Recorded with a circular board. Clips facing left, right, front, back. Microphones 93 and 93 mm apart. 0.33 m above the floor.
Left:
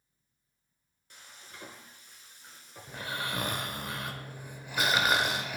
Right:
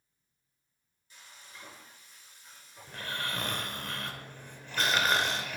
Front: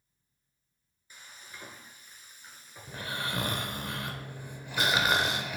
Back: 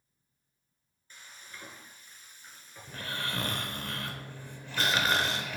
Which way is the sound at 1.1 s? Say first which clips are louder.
Left 1 dB, even; 75° left.